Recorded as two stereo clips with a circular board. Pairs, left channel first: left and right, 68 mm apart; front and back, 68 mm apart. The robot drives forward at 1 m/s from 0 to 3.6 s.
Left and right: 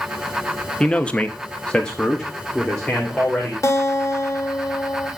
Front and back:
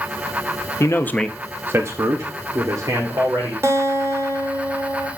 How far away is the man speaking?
About 0.8 m.